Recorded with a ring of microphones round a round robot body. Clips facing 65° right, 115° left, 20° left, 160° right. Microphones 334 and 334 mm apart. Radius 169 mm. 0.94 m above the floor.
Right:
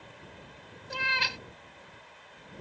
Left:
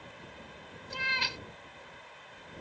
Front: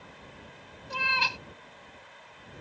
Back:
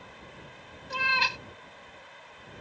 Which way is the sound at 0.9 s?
95° right.